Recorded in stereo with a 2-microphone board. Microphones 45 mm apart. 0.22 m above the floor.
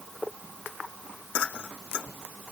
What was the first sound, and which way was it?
Only background noise.